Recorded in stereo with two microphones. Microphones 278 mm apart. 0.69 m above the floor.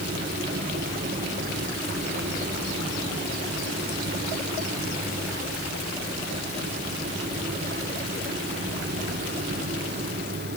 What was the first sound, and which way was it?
Only background noise.